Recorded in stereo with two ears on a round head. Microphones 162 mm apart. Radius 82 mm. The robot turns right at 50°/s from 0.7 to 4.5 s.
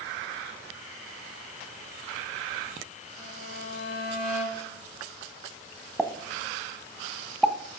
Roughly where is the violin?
Left.